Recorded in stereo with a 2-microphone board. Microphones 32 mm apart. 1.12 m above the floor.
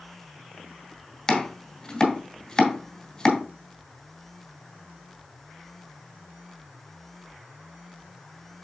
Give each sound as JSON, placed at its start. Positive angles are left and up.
{"t": 1.3, "sound": "chopping", "side_deg": 15, "distance_m": 2.0}